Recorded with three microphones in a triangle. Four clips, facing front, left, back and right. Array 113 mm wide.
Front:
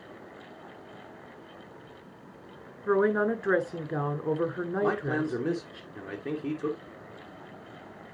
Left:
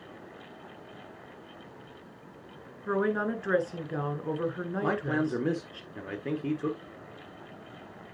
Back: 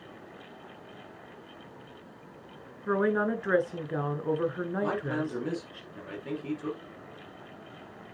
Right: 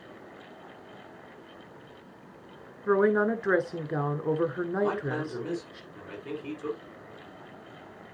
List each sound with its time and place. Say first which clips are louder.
2.9 s a woman speaking: right 5 dB, front 2 dB; 70° right, 1.1 m
4.8 s a man speaking: left 3 dB, front 4 dB; 60° left, 2 m